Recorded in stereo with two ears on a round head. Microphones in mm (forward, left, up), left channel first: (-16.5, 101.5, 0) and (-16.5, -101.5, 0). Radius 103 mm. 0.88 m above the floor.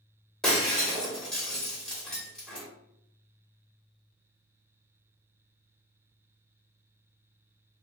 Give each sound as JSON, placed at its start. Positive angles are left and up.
{"t": 0.4, "sound": "breaking glass", "side_deg": 5, "distance_m": 0.8}